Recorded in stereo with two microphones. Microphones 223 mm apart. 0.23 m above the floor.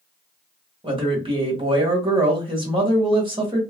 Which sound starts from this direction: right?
A man speaking, at 0.8 s.